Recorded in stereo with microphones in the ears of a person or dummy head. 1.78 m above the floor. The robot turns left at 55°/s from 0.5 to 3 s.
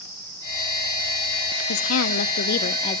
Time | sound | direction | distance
1.7 | a woman speaking | 100° left | 0.8 m